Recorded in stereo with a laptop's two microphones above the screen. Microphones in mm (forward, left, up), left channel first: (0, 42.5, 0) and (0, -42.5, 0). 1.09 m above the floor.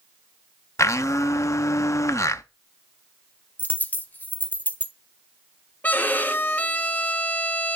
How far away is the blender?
About 0.5 m.